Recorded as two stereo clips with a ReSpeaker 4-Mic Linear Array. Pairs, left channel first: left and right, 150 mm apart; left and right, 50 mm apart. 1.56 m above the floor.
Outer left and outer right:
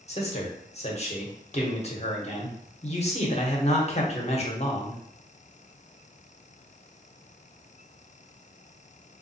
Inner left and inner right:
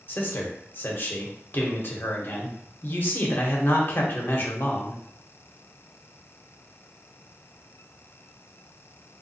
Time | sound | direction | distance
0.1 | a man speaking | 45° left (ahead or behind) | 0.9 m